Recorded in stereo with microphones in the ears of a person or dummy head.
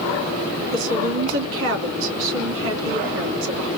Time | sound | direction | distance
0.7 | a woman speaking | 80° right | 3 m